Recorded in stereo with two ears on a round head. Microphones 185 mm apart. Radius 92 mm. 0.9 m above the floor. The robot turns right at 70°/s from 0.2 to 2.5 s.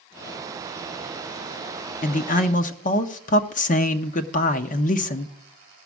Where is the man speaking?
75° left, 0.8 m; by 5.3 s 105° left, 0.8 m.